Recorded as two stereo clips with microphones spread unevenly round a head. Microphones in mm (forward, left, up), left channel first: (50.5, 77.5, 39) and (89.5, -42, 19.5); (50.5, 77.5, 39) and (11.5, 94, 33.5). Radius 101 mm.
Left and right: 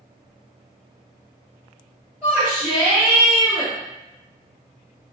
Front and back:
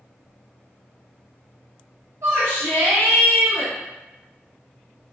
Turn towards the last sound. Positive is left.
turn(degrees=-150)